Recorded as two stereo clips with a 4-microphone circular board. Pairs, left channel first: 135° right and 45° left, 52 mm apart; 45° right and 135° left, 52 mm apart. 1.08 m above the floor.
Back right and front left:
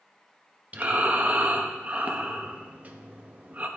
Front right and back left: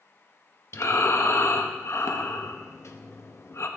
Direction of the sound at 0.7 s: 15° right.